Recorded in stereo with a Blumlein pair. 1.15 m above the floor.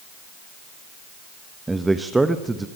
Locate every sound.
1.7 s a man speaking: 10° right, 0.9 m